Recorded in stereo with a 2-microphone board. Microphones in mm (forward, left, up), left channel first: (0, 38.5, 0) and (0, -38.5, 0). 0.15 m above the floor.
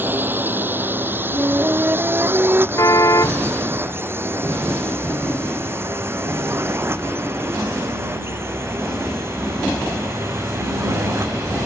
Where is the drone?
25° right (ahead or behind); by 11.7 s 35° right (ahead or behind).